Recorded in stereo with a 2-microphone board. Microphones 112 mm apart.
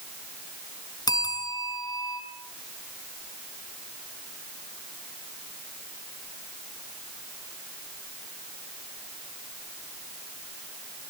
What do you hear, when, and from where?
1.1 s a bell: 40° left (ahead or behind), 4 m